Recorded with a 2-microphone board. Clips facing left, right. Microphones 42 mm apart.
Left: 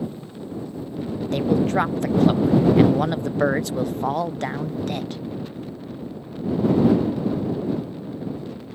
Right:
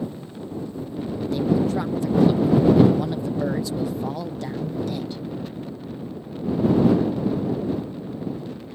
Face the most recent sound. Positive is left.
turn(degrees=55)  # may be behind; listen again after turning